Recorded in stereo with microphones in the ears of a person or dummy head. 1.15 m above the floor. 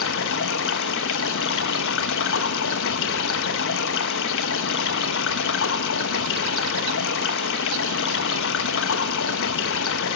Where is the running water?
65° left (ahead or behind), 1.0 m.